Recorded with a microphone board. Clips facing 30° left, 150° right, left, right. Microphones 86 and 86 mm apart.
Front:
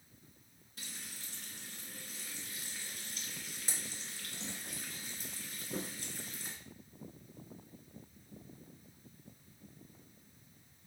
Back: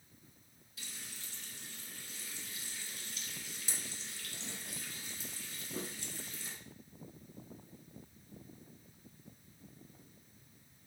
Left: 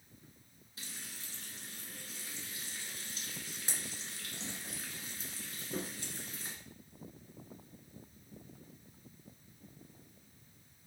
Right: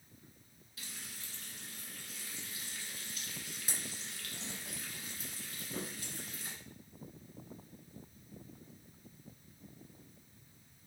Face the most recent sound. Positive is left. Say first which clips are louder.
# front 1 dB, left 1 dB
turn(degrees=45)